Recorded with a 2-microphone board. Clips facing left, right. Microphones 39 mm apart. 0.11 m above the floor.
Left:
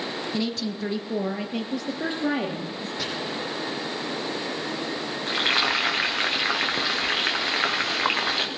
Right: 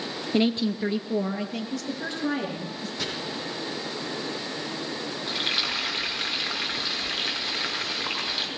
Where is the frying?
65° left (ahead or behind), 2.5 m.